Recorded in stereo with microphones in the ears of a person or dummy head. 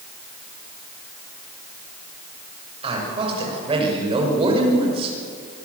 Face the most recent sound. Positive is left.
turn(degrees=-25)  # may be behind; listen again after turning